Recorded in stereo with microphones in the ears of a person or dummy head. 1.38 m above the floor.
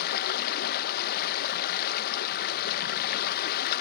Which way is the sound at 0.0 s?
50° left (ahead or behind).